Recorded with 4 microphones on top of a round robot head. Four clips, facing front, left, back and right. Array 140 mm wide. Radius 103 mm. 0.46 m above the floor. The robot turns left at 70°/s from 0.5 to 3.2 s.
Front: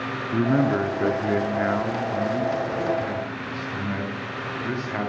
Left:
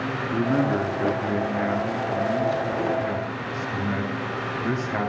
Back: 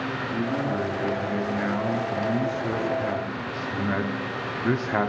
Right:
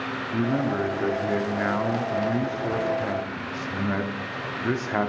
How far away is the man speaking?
About 1.0 m.